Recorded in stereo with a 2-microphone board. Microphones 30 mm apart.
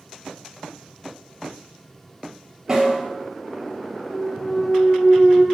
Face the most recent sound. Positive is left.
turn(degrees=40)  # may be behind; listen again after turning